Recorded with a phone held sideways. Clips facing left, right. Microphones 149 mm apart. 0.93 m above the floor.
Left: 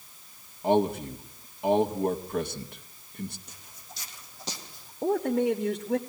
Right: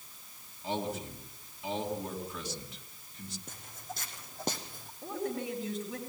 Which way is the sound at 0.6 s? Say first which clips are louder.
Left 11 dB; 55° left (ahead or behind).